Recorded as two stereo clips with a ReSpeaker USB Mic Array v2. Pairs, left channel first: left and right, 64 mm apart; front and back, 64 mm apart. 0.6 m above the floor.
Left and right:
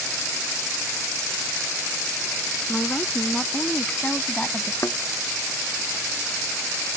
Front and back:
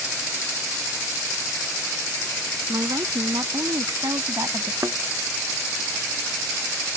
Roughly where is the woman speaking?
Behind.